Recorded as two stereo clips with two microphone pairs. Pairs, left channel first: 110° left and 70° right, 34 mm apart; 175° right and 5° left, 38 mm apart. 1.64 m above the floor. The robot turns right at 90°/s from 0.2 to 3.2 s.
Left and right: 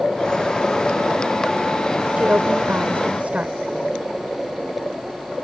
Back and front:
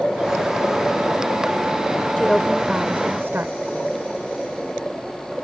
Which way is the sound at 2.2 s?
115° right.